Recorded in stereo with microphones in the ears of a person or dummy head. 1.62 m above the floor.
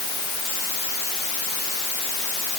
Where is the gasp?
I don't hear a gasp.